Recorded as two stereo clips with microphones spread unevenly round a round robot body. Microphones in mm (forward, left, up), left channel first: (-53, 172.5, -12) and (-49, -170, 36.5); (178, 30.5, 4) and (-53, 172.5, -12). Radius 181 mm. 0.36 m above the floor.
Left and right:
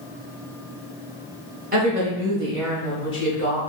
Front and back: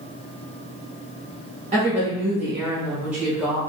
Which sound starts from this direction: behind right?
A woman speaking, at 1.7 s.